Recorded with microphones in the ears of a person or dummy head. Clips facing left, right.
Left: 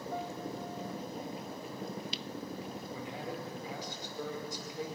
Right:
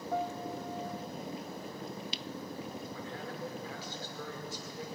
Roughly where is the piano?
Right.